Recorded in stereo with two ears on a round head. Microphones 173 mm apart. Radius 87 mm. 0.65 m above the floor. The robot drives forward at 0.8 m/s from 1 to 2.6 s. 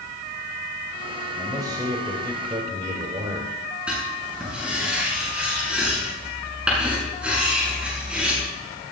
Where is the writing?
5° right (ahead or behind), 8.5 m.